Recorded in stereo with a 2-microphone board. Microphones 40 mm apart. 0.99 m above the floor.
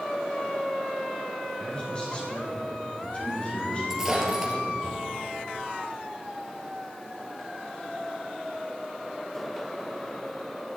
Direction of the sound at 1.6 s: 25° left (ahead or behind).